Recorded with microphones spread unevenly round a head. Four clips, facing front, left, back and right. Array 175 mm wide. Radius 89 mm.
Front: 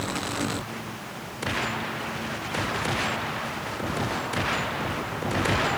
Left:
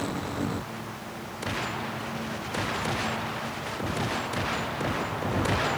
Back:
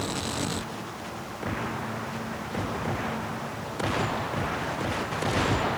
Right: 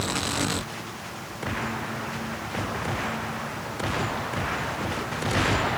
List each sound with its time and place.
Only background noise.